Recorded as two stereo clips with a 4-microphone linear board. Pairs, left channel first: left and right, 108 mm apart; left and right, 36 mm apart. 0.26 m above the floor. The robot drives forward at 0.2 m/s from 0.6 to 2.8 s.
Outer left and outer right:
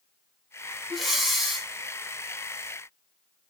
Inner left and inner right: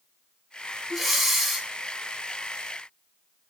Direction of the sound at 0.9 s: Centre (ahead or behind).